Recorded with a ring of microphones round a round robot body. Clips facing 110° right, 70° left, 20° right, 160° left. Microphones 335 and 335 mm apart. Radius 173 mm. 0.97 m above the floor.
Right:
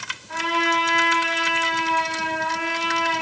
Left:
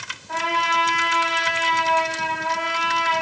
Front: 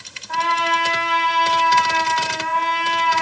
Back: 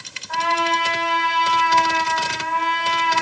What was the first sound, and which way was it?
A trumpet, 30° left.